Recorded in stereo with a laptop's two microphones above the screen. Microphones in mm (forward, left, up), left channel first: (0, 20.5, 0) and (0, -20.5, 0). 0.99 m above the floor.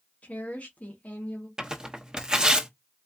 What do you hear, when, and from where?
0.2 s a woman speaking: 35° left (ahead or behind), 1.2 m
1.6 s tearing paper: 15° right (ahead or behind), 0.8 m